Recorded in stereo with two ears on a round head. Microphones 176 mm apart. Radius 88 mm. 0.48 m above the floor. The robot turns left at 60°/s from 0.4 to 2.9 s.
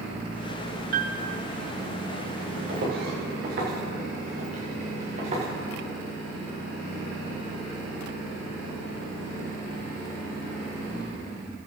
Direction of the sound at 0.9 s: 55° right (ahead or behind).